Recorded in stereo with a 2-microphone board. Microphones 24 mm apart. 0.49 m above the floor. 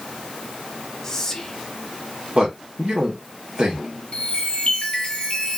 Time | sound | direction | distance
1.0 | whispering | 20° left (ahead or behind) | 0.7 m
2.4 | a man speaking | 40° right (ahead or behind) | 1.1 m
4.1 | a chime | 40° left (ahead or behind) | 0.9 m